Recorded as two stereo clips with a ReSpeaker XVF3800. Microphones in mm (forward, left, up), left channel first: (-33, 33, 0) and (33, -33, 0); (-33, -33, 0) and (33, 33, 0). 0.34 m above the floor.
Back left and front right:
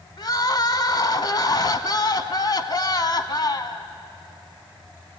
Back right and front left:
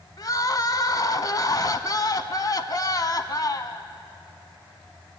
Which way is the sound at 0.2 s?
Straight behind.